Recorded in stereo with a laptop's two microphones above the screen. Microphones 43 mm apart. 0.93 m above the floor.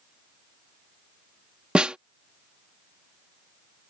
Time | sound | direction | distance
1.8 | a snare drum | 25° right (ahead or behind) | ?